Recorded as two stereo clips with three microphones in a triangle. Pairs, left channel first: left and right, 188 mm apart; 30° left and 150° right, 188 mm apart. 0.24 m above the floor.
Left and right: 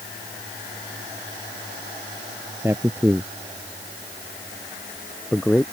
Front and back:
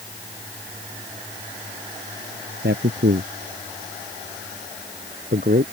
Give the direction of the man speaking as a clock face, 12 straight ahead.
6 o'clock.